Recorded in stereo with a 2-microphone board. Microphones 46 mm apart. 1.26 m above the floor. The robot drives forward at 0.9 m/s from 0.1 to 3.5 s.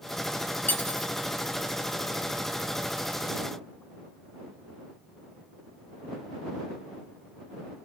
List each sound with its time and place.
0.7 s cutlery clinking: 40° left (ahead or behind); by 1.1 s 35° left (ahead or behind)